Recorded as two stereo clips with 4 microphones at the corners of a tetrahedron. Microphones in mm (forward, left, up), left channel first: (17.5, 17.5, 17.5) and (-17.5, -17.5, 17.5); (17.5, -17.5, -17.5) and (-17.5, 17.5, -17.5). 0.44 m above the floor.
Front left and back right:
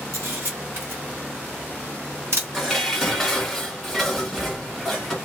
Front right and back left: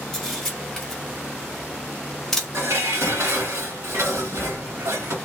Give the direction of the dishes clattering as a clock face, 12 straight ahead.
7 o'clock.